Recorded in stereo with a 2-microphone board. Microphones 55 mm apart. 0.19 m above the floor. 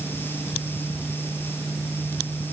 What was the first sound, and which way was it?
Only background noise.